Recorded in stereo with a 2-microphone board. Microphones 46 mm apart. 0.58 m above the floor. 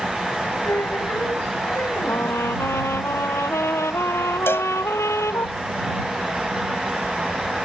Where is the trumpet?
75° left (ahead or behind).